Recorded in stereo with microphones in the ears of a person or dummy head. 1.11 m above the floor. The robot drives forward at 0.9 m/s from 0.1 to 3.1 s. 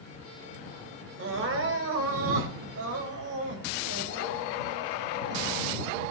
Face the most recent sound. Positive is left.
turn(degrees=-80)